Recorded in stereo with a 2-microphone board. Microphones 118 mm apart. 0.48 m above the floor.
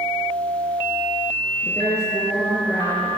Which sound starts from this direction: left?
A woman speaking, at 1.6 s.